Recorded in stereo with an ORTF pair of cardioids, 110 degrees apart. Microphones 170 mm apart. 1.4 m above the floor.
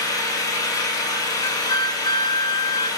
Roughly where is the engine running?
Ahead.